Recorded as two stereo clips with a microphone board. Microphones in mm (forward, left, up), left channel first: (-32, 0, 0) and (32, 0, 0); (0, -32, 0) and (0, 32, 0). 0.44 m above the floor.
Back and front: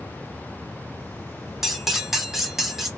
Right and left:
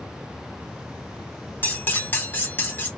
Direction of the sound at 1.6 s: 80° right.